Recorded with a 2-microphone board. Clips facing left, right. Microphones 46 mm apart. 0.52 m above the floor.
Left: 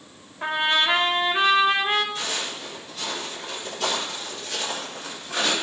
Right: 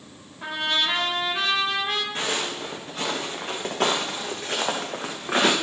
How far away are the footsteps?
About 4 m.